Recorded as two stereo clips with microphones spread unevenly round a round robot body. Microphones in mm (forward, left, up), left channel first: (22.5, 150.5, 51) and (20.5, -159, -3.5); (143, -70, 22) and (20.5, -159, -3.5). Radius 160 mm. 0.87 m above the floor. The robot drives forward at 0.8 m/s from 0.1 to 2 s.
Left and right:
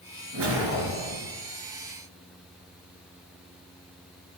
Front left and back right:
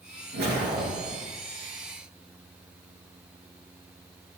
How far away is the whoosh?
About 5.5 m.